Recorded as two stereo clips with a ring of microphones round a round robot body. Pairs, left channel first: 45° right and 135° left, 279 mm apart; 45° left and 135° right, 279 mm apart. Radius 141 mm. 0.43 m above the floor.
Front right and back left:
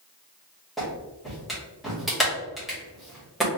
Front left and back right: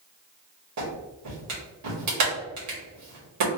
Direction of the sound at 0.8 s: 135° right.